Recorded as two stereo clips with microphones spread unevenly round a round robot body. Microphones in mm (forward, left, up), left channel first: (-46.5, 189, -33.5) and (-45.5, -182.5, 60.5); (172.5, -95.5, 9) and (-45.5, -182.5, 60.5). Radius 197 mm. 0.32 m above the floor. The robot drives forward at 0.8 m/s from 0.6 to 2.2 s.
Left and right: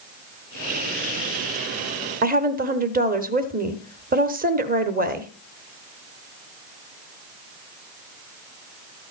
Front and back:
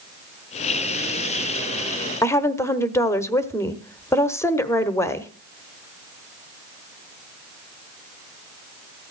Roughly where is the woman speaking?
Ahead.